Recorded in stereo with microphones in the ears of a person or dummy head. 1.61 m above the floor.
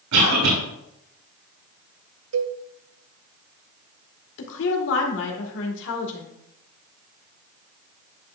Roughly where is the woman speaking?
Left.